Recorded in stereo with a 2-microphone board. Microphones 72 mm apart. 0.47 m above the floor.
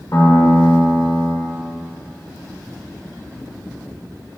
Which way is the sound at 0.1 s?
45° left (ahead or behind).